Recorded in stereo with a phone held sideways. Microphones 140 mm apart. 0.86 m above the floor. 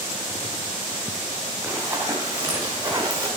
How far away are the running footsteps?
About 4 m.